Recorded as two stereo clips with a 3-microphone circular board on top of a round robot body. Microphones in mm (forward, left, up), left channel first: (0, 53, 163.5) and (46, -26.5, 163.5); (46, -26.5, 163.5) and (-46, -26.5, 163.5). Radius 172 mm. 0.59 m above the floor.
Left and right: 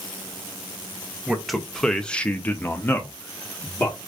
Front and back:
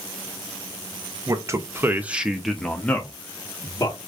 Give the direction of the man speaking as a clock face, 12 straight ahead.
5 o'clock.